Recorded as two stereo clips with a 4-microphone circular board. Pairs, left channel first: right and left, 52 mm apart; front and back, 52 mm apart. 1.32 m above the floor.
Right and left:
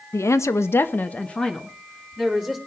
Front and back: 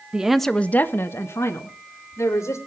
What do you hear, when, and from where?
0.1 s a woman speaking: 110° right, 1.1 m; by 2.6 s 5° right, 3.5 m